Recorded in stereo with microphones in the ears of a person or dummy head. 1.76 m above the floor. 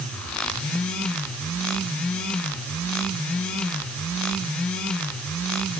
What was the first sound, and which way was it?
Only background noise.